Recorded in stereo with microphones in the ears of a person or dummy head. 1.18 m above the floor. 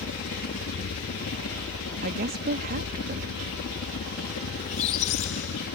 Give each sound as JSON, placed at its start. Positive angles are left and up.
{"t": 0.0, "sound": "a helicopter", "side_deg": 60}
{"t": 2.0, "sound": "a woman speaking", "side_deg": -45}
{"t": 4.6, "sound": "a squeak", "side_deg": 40}